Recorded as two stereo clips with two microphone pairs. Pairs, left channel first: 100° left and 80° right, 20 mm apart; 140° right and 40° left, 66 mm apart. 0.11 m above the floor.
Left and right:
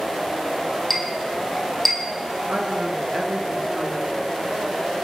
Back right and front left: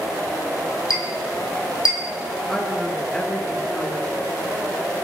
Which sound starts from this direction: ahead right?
A woman speaking, at 2.5 s.